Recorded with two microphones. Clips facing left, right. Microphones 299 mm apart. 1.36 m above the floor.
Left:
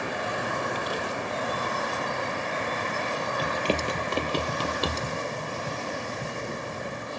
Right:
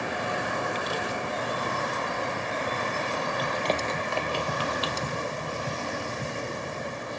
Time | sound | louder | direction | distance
3.4 | running footsteps | left 3 dB | 30° left (ahead or behind) | 1.8 m